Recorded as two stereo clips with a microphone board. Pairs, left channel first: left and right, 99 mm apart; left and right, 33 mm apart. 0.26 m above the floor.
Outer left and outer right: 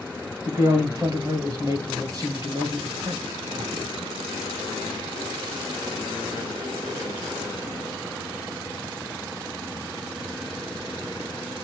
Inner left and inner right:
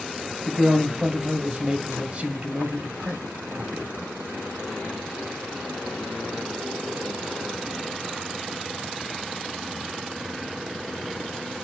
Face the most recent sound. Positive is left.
turn(degrees=-40)  # may be behind; listen again after turning